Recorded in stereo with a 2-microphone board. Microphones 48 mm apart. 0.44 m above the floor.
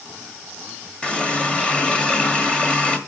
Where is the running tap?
20° left (ahead or behind), 1.4 m.